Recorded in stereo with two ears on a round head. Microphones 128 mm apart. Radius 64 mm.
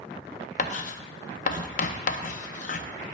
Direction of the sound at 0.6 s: 55° left (ahead or behind).